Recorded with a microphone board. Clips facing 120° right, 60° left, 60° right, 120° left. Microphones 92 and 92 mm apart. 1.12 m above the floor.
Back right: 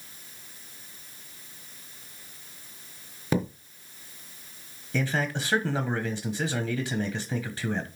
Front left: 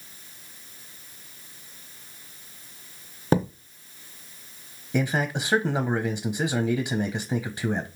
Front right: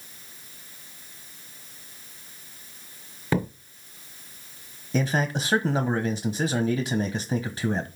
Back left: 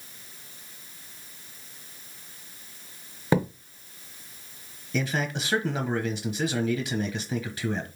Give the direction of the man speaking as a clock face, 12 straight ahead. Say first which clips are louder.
Front left 3 dB, front right 3 dB; 12 o'clock.